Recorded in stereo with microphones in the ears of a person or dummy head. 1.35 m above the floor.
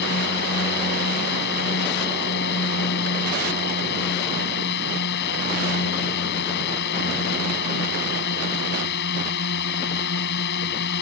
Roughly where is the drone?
Left.